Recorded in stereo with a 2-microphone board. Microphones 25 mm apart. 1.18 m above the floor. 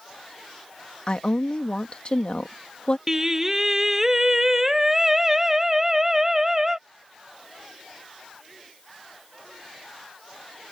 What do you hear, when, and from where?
1.1 s a woman speaking: 45° left (ahead or behind)
3.1 s singing: 20° right (ahead or behind)